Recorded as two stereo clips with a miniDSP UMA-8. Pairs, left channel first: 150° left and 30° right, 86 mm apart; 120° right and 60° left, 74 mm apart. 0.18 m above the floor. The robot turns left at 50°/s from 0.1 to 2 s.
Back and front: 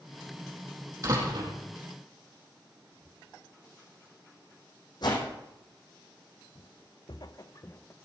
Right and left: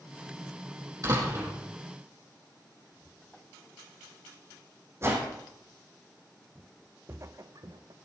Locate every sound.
1.0 s a door slam: 20° left, 6 m; by 1.5 s 5° right, 6 m
2.9 s whispering: 10° left, 3.5 m
5.0 s a whoosh: 115° left, 5 m
6.5 s footsteps: 135° left, 1.1 m; by 8.0 s 85° left, 1.0 m